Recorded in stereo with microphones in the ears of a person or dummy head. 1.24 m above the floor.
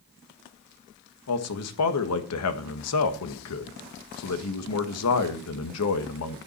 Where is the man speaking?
80° left, 1.5 m.